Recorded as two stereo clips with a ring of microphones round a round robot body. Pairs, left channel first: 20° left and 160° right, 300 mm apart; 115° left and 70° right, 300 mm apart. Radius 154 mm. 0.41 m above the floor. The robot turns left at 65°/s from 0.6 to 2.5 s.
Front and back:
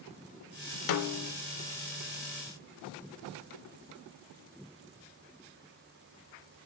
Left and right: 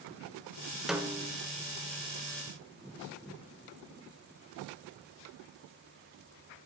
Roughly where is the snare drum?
Ahead.